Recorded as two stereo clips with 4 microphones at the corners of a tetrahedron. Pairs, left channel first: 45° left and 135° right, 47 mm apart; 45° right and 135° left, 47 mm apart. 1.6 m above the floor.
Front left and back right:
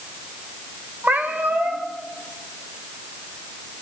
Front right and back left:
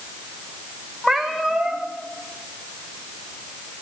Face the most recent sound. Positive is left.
turn(degrees=-135)